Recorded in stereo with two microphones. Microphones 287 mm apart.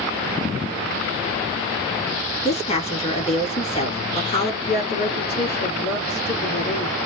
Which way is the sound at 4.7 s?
35° left (ahead or behind).